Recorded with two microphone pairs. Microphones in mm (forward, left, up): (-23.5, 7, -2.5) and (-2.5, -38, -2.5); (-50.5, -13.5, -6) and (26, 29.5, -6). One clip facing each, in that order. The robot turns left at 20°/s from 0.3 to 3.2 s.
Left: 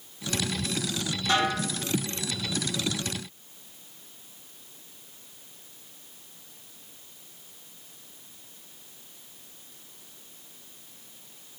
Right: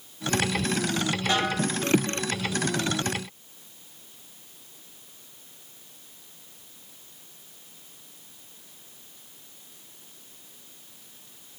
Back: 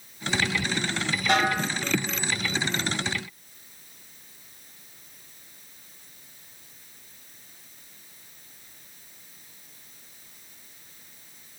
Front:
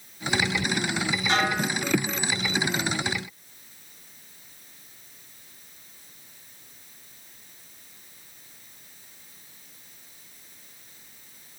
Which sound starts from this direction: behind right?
A snare drum, at 1.3 s.